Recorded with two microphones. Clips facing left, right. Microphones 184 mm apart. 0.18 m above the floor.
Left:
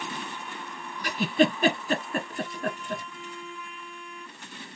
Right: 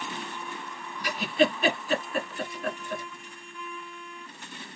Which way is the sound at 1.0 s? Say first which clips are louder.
Left 2 dB; 45° left (ahead or behind).